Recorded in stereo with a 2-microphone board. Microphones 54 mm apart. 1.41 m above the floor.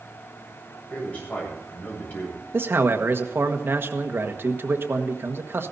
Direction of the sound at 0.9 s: 30° left (ahead or behind).